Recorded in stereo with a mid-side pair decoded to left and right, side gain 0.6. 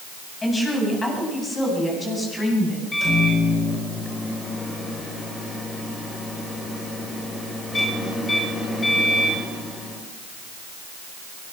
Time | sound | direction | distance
0.4 | a woman speaking | 20° left | 8.5 m
2.9 | a microwave | 20° left | 5.5 m